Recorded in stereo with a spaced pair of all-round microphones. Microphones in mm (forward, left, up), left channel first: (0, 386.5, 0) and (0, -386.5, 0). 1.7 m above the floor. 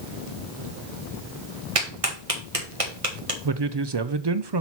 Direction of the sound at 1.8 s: 40° right (ahead or behind).